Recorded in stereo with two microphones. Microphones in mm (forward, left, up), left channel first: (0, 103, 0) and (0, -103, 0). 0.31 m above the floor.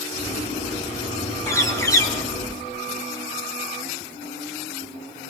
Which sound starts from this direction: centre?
A bird, at 1.5 s.